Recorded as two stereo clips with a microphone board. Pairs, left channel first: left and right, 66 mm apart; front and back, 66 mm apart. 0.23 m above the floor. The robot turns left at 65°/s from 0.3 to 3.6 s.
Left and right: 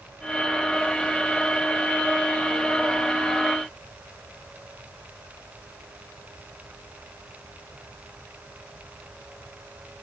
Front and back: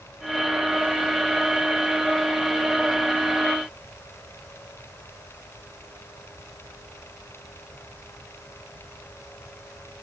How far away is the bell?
No bell in this recording.